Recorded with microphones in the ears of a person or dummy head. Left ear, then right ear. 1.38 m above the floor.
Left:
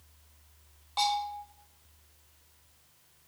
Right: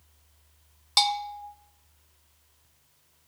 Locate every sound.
1.0 s a bell: 65° right (ahead or behind), 0.7 m